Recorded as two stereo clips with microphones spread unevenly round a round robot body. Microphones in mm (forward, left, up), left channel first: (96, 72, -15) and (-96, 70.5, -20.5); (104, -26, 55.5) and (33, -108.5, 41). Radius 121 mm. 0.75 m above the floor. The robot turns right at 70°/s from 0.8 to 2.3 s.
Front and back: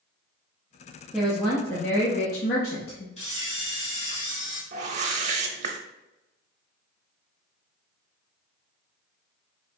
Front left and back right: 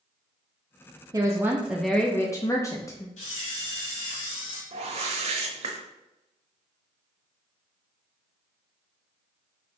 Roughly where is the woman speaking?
Right.